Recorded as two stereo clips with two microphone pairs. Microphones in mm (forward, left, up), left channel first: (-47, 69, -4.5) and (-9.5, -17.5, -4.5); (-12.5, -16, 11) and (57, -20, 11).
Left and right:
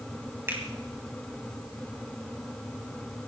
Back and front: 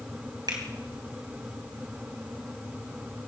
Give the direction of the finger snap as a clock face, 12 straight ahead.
12 o'clock.